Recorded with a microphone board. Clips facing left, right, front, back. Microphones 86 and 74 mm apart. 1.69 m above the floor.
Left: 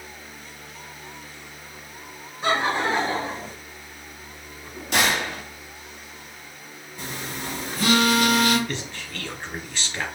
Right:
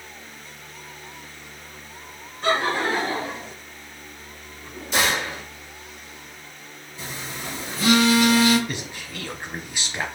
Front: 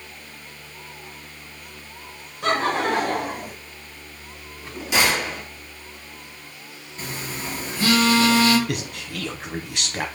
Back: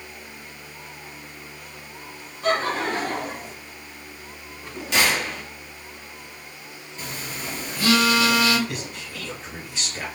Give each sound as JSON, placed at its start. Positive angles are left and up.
{"t": 2.4, "sound": "laughter", "azimuth_deg": 15, "distance_m": 1.7}
{"t": 4.9, "sound": "a gunshot", "azimuth_deg": 80, "distance_m": 1.8}
{"t": 7.0, "sound": "a phone buzzing", "azimuth_deg": 55, "distance_m": 1.6}
{"t": 8.7, "sound": "a man speaking", "azimuth_deg": -15, "distance_m": 0.9}